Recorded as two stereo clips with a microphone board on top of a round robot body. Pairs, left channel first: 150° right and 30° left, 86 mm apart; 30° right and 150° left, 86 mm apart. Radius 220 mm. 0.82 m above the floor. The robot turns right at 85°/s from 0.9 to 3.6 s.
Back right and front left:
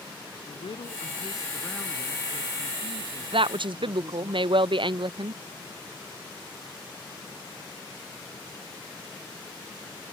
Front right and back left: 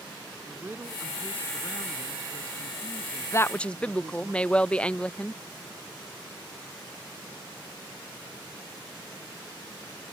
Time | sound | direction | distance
0.5 | a woman speaking | 145° right | ?
3.3 | a woman speaking | 25° left | ?